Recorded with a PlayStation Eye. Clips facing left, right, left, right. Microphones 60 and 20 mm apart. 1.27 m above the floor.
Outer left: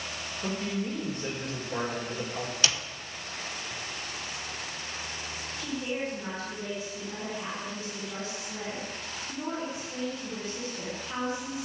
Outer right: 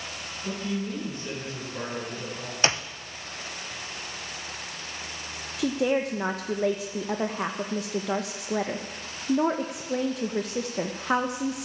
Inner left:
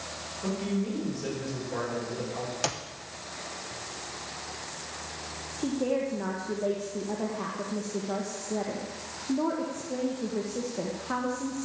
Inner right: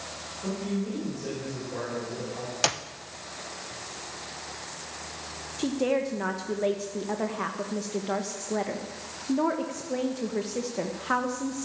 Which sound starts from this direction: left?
A man speaking, at 0.4 s.